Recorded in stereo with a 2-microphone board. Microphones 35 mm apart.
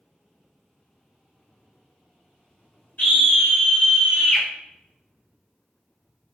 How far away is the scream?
About 1.2 m.